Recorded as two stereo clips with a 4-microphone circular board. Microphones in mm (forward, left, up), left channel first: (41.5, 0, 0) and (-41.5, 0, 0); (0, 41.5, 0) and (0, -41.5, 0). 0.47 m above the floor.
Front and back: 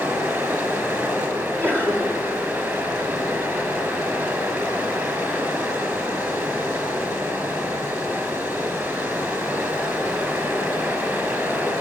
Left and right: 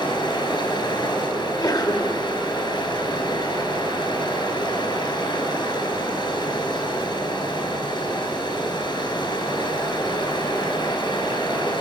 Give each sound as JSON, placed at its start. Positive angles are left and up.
{"t": 0.0, "sound": "running water", "azimuth_deg": 120, "distance_m": 4.5}
{"t": 1.4, "sound": "a sneeze", "azimuth_deg": 125, "distance_m": 2.0}